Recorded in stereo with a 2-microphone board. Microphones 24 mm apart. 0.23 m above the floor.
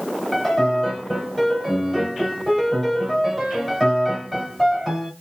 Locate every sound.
0.3 s a piano: centre (ahead or behind), 1.3 m